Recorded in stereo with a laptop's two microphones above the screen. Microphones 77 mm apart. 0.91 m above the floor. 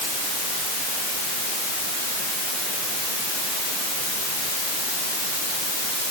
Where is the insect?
No insect in this recording.